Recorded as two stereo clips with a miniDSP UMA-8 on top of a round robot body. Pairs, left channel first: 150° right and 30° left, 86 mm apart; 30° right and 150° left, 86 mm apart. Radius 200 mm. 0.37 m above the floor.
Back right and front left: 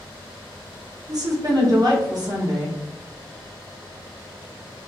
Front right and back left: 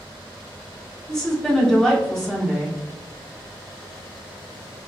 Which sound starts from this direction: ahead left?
A woman speaking, at 1.1 s.